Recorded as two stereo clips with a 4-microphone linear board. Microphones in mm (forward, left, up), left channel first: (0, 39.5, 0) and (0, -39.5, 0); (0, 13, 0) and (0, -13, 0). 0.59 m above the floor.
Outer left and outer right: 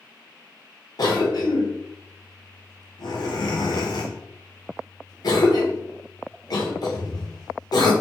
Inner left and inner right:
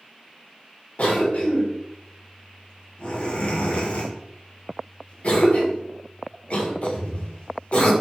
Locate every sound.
1.0 s a cough: 60° left (ahead or behind), 1.3 m